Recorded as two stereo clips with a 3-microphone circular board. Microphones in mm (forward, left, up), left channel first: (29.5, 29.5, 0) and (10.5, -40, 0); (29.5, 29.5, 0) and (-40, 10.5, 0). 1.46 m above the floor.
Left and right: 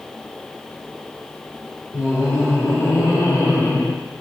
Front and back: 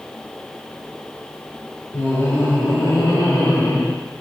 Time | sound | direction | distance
1.9 | laughter | 40° left | 5 m